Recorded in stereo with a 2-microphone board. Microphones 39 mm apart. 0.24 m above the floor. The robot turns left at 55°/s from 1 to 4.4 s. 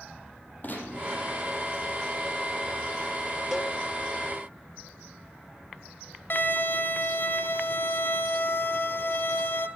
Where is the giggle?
No giggle in this recording.